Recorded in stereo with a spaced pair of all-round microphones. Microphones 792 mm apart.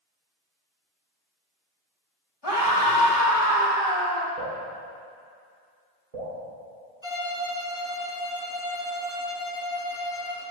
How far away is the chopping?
I don't hear chopping.